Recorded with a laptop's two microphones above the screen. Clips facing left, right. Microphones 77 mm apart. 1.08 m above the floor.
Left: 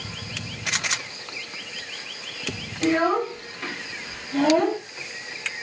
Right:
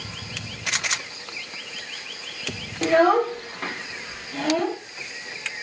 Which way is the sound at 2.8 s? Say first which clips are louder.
Right 4 dB; 70° right (ahead or behind).